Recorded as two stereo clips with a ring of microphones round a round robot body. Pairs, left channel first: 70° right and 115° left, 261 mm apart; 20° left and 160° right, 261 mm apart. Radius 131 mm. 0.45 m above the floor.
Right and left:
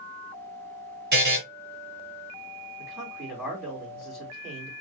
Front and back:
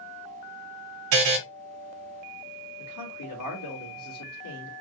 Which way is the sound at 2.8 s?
30° left.